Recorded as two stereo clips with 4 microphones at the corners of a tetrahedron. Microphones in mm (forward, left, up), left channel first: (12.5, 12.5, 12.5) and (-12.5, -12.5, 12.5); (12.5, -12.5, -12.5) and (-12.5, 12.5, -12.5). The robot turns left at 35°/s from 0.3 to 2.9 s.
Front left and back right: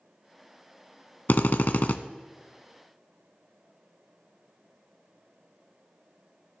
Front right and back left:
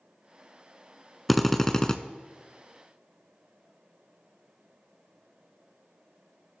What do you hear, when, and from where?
1.3 s a drill: 45° left, 0.6 m; by 2.0 s 20° left, 0.6 m